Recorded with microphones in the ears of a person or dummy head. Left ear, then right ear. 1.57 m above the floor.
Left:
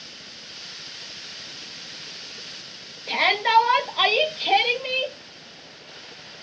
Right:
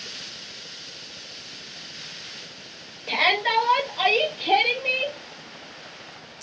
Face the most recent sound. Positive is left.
turn(degrees=65)  # may be behind; listen again after turning